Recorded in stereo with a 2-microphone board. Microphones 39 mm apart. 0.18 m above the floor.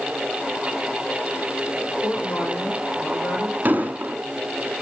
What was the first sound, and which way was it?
A woman speaking, 65° left (ahead or behind).